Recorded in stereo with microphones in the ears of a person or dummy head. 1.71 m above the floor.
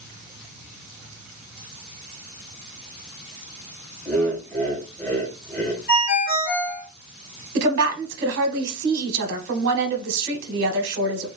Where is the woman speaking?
65° right (ahead or behind), 0.8 m.